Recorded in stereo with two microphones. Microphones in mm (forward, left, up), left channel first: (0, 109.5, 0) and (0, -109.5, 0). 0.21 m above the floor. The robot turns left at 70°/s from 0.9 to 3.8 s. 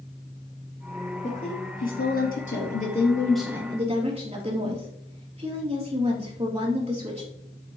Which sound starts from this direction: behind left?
A woman speaking, at 1.2 s.